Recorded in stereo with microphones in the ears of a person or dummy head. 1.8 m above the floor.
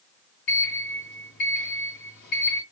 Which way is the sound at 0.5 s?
35° left (ahead or behind).